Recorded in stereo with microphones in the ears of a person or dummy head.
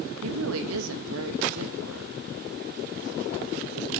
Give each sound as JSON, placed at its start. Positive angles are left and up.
{"t": 0.2, "sound": "a woman speaking", "side_deg": -80, "distance_m": 2.5}